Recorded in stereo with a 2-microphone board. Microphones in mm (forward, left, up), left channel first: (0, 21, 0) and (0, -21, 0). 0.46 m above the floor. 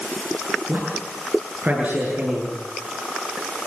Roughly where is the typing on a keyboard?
I don't hear typing on a keyboard.